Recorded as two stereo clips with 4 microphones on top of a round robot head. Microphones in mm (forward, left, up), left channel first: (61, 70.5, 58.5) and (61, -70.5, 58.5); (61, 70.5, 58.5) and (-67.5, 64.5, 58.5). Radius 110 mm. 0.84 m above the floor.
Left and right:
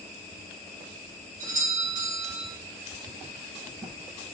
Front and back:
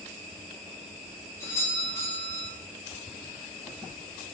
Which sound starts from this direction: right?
A doorbell, at 1.4 s.